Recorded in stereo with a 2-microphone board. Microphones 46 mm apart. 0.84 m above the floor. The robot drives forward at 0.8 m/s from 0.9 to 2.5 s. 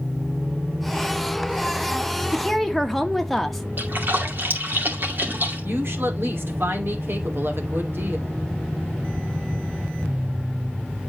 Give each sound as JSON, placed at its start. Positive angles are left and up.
{"t": 2.3, "sound": "a woman speaking", "side_deg": 5, "distance_m": 1.1}
{"t": 3.8, "sound": "a splash", "side_deg": -50, "distance_m": 2.5}
{"t": 5.6, "sound": "a woman speaking", "side_deg": -65, "distance_m": 2.5}